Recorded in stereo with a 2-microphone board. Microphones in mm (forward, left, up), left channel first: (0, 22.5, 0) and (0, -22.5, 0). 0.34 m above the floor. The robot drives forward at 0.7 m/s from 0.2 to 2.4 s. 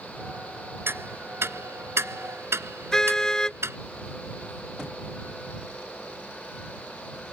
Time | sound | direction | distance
0.9 | ticking | 65° right (ahead or behind) | ?
2.9 | a car horn | 15° left (ahead or behind) | ?